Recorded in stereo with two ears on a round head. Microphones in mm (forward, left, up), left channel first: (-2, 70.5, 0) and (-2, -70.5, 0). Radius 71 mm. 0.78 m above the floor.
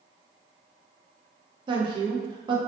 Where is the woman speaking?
30° right (ahead or behind), 0.6 m.